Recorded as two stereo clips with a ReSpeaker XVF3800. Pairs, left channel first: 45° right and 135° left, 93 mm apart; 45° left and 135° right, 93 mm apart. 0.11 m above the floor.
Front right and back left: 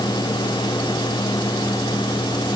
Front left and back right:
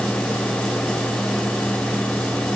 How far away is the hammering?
I don't hear hammering.